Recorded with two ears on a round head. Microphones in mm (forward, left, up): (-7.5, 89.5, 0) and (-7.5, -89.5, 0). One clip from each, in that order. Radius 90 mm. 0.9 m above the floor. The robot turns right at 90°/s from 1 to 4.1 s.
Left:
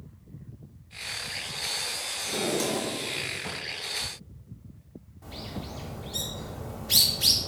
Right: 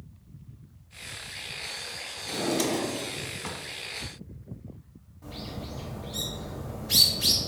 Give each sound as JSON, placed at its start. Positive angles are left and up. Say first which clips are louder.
{"t": 2.3, "sound": "a drawer", "louder": "right 1 dB", "azimuth_deg": 175, "distance_m": 0.8}
{"t": 5.2, "sound": "a bird", "louder": "even", "side_deg": 10, "distance_m": 1.0}